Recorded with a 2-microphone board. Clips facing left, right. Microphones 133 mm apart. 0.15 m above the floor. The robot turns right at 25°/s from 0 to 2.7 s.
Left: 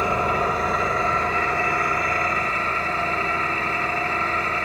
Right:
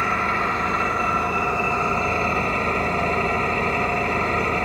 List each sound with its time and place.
0.0 s an engine running: 160° left, 0.9 m; by 4.6 s 135° right, 0.9 m